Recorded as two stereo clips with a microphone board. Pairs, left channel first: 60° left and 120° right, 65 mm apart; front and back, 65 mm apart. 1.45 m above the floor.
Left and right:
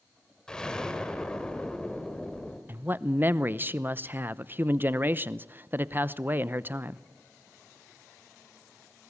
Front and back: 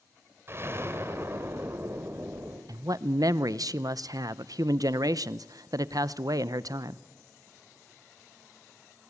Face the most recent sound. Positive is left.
turn(degrees=-175)